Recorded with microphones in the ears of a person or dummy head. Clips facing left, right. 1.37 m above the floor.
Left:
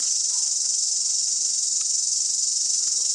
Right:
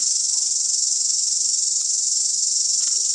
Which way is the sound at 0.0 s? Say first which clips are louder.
Even; 35° right (ahead or behind).